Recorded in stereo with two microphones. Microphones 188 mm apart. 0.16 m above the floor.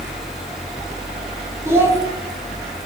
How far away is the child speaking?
About 0.6 m.